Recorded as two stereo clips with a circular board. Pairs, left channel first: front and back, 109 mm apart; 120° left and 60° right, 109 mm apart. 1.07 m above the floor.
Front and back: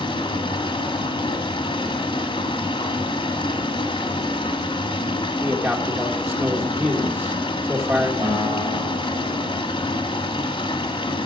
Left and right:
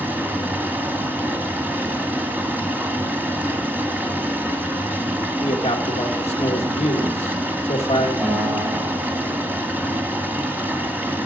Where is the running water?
10° left, 1.5 m.